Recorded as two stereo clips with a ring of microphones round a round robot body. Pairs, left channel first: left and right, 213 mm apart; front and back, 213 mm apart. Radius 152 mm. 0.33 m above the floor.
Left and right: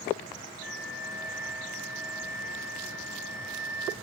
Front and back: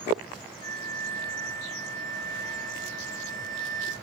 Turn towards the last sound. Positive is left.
turn(degrees=70)